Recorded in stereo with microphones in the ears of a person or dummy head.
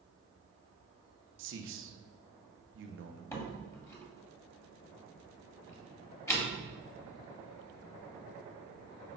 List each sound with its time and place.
1.4 s a man speaking: 60° right (ahead or behind), 1.2 m
3.3 s a door slam: 15° left (ahead or behind), 2 m